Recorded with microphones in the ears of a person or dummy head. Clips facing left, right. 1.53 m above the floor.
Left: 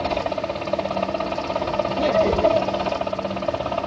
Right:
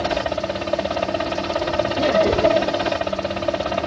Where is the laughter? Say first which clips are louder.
Right 1 dB; 10° right (ahead or behind).